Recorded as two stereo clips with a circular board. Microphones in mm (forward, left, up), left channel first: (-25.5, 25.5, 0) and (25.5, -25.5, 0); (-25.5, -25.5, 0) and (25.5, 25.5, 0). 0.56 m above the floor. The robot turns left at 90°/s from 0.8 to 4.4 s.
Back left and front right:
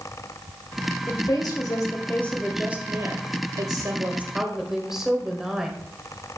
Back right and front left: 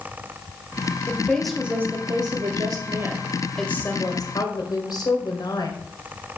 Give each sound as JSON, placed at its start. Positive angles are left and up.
{"t": 1.1, "sound": "a woman speaking", "azimuth_deg": 170, "distance_m": 2.5}